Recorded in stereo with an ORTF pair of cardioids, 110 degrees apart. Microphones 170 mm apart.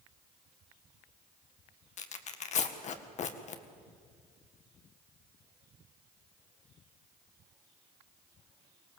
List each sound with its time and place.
2.0 s tearing paper: 50° left, 1.8 m